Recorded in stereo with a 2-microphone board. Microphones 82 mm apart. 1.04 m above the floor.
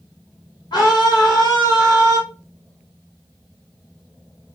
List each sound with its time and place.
0.7 s a scream: 60° left (ahead or behind), 1.3 m